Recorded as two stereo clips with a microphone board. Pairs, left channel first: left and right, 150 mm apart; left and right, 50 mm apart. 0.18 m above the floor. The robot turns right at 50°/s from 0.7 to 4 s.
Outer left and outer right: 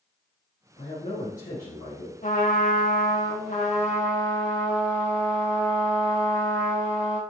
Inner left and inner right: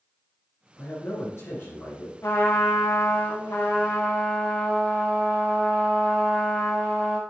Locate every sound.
0.8 s a man speaking: 45° left, 2.5 m; by 2.1 s 110° left, 2.5 m
2.2 s a trumpet: 60° left, 3.5 m; by 7.2 s 150° left, 3.5 m